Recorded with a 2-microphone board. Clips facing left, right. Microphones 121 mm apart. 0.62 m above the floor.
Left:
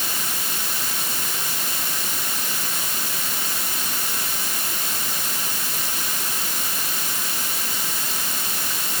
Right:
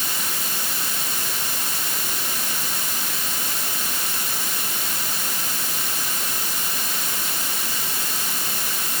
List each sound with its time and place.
Only background noise.